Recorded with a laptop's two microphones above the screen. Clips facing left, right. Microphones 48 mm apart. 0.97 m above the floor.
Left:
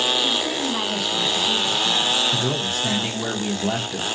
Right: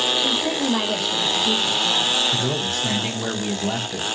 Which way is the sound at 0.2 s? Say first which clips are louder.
Right 1 dB; 45° right (ahead or behind).